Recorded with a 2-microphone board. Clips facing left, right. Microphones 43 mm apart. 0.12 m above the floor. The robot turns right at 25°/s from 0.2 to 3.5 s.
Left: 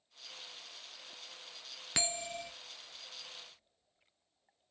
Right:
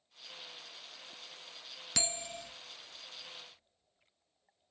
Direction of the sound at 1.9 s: 25° left (ahead or behind).